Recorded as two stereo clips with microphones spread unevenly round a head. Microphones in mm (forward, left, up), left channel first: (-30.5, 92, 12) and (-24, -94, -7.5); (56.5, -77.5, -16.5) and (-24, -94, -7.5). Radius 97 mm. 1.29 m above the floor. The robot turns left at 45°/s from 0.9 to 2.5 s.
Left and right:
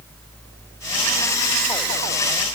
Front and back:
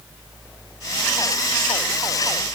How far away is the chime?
I don't hear a chime.